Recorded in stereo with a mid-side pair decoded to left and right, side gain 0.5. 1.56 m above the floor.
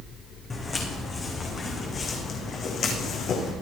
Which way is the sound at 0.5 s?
30° left.